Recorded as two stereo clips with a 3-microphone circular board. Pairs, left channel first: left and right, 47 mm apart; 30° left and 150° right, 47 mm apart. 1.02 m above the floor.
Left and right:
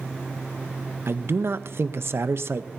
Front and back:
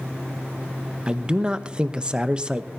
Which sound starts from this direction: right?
A man speaking, at 1.1 s.